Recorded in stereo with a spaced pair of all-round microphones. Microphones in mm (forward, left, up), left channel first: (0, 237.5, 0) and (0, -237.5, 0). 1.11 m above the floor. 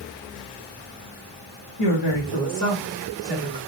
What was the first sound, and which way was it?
A woman speaking, 70° left (ahead or behind).